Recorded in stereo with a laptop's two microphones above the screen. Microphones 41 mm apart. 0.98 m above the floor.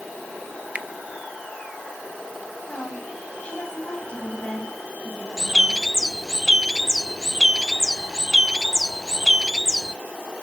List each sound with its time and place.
0.8 s a finger snap: 35° right (ahead or behind), 0.7 m
2.7 s a woman speaking: 25° left (ahead or behind), 8 m
5.4 s a bird: 10° right (ahead or behind), 0.5 m